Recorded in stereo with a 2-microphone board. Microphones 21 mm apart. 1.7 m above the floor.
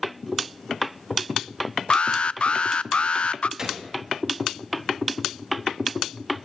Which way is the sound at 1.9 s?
60° left (ahead or behind).